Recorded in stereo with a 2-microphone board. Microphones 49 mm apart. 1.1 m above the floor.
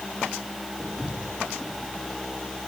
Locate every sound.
0.8 s footsteps: 15° right (ahead or behind), 8 m